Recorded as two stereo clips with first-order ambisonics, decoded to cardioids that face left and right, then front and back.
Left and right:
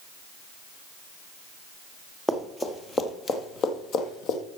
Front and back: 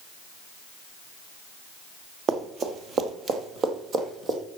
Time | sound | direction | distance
2.3 | running footsteps | 175° left | 1.6 m